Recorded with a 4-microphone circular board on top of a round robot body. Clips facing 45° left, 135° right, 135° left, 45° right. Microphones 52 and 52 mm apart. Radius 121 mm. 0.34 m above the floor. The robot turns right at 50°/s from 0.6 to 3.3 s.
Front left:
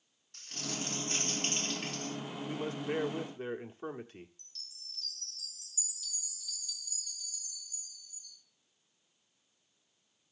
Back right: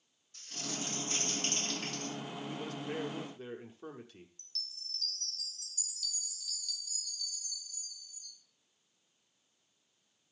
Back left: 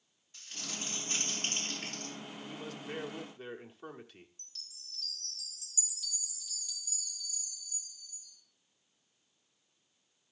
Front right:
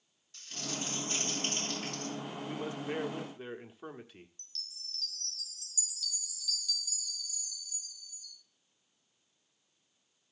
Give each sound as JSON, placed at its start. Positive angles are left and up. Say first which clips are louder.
{"t": 0.3, "sound": "crumpling", "louder": "front left 1 dB, front right 4 dB", "azimuth_deg": 60, "distance_m": 4.5}
{"t": 2.5, "sound": "a man speaking", "louder": "front left 6 dB, front right 6 dB", "azimuth_deg": -10, "distance_m": 1.3}
{"t": 4.4, "sound": "a chime", "louder": "back right 5 dB, front right 5 dB", "azimuth_deg": -160, "distance_m": 2.0}